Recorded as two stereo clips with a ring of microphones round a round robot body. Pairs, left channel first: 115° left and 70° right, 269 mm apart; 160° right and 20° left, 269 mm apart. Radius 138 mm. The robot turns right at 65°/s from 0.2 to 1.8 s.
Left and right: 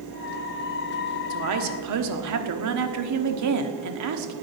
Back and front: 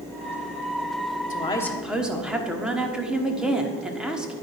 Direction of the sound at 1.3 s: 95° right.